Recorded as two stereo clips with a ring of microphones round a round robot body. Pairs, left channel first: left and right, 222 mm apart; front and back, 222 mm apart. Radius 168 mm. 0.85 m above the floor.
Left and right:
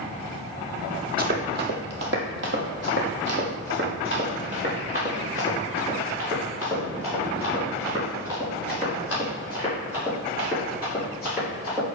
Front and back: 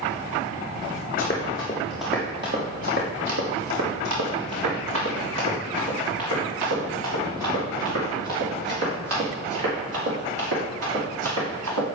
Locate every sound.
1.2 s running footsteps: 60° right, 1.3 m; by 11.8 s 175° right, 6.5 m